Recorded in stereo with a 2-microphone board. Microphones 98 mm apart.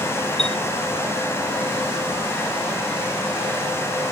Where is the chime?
5° left (ahead or behind).